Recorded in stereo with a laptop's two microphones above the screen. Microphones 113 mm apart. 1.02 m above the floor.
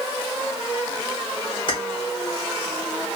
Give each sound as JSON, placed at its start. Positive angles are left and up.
{"t": 1.7, "sound": "keys jangling", "side_deg": 45, "distance_m": 2.5}